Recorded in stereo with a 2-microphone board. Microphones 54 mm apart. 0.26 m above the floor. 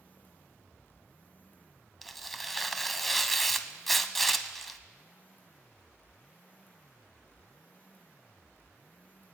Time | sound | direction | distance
2.0 | tearing paper | 5° left (ahead or behind) | 0.7 m